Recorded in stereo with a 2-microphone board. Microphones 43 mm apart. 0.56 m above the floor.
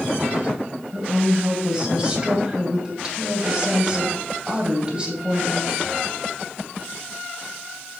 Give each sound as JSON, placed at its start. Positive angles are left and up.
{"t": 0.9, "sound": "a woman speaking", "side_deg": -25, "distance_m": 2.5}